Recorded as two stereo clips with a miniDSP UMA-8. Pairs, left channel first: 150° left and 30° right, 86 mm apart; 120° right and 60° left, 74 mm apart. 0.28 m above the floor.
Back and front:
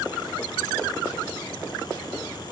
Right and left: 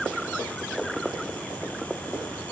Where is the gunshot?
No gunshot in this recording.